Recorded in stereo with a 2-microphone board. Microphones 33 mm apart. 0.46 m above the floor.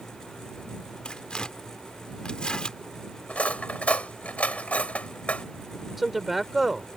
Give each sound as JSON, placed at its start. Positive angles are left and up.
{"t": 1.1, "sound": "tearing paper", "side_deg": 30}
{"t": 3.3, "sound": "cutlery clinking", "side_deg": 50}
{"t": 6.0, "sound": "a man speaking", "side_deg": -5}